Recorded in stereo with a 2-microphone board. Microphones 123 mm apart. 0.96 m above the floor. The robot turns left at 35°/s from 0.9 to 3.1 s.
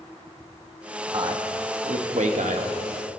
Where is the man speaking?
35° right (ahead or behind), 1.0 m; by 2.8 s 80° right, 1.0 m.